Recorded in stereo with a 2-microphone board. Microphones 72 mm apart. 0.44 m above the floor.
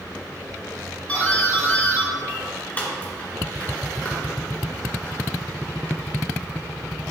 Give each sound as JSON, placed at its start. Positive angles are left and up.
{"t": 1.1, "sound": "a doorbell", "side_deg": 25, "distance_m": 1.8}